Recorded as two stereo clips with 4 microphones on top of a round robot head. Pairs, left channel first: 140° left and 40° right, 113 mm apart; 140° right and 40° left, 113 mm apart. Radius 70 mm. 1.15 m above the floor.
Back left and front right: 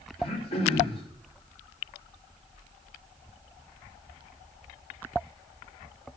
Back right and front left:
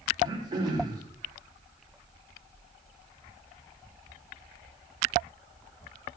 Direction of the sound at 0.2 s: 100° left.